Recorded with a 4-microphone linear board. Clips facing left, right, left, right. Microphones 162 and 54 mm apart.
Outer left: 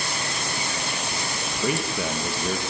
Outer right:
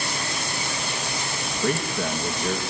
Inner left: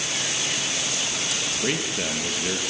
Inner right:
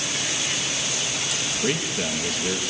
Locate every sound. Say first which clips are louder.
1.6 s a man speaking: outer right 1 dB, inner right 1 dB; 5° left (ahead or behind), 1.8 m